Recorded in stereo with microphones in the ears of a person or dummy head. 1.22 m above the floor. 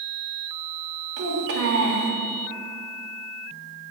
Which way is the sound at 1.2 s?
65° right (ahead or behind).